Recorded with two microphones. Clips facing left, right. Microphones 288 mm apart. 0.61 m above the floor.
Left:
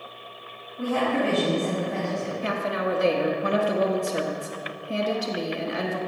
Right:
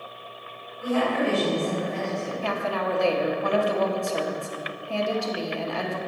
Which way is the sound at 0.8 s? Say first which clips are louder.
Even; 65° left (ahead or behind).